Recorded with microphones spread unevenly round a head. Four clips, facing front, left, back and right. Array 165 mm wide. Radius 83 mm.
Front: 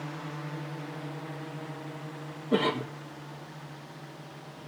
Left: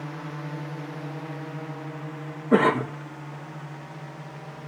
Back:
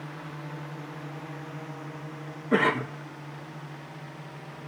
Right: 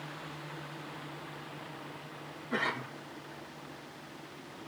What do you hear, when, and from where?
0.0 s a drone: 70° left; by 4.7 s 95° left
2.5 s a cough: 90° left